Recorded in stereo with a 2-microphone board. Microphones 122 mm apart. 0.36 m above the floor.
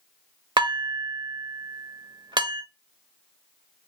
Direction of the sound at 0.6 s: 40° right (ahead or behind).